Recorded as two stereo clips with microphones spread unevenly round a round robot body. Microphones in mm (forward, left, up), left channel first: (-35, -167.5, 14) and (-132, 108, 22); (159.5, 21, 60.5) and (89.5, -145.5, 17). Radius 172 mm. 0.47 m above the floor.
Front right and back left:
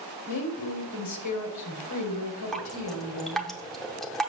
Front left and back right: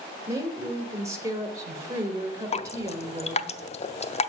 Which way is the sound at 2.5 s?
15° left.